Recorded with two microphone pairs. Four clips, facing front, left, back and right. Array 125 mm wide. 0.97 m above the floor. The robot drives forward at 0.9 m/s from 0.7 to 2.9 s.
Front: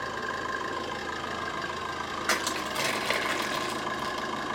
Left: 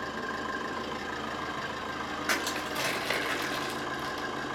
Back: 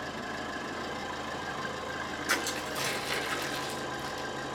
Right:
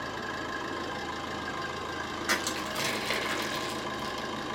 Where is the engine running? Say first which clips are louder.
Left 1 dB, front 4 dB; straight ahead, 6 m.